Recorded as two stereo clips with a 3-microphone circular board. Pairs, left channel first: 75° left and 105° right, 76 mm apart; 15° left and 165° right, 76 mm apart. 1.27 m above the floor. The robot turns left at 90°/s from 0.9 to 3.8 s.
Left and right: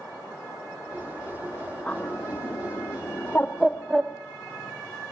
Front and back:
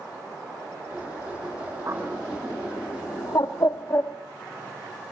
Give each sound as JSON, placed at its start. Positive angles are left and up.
{"t": 1.9, "sound": "a bird", "azimuth_deg": 150, "distance_m": 1.1}